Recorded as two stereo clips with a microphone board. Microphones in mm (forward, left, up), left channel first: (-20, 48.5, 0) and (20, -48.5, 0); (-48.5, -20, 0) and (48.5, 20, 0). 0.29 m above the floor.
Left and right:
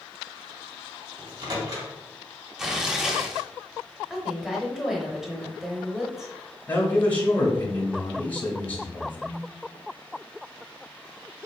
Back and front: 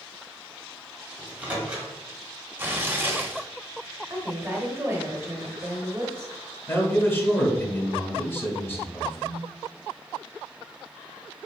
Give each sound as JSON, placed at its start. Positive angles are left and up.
{"t": 1.2, "sound": "a microwave", "azimuth_deg": -45, "distance_m": 1.5}
{"t": 2.6, "sound": "tearing paper", "azimuth_deg": 10, "distance_m": 0.8}
{"t": 4.1, "sound": "a woman speaking", "azimuth_deg": 15, "distance_m": 1.0}
{"t": 6.7, "sound": "a man speaking", "azimuth_deg": 165, "distance_m": 1.0}